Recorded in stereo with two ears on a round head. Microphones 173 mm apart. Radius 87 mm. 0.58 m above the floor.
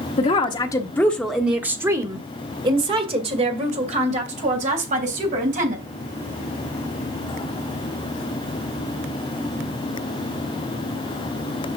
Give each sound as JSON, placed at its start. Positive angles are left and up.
{"t": 0.2, "sound": "a woman speaking", "side_deg": 35, "distance_m": 1.0}